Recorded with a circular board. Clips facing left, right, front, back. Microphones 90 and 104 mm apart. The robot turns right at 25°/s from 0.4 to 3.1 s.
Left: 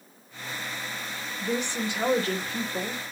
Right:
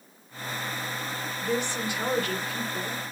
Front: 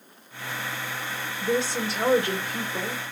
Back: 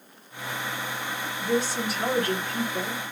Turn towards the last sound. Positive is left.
turn(degrees=70)